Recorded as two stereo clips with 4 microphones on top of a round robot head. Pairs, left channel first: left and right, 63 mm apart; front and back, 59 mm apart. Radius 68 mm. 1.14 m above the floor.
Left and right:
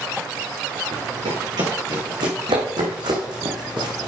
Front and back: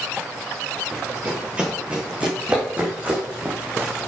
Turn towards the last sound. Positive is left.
turn(degrees=-115)